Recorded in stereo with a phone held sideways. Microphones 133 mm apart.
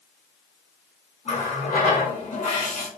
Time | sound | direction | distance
1.2 | a running tap | 55° left (ahead or behind) | 0.9 m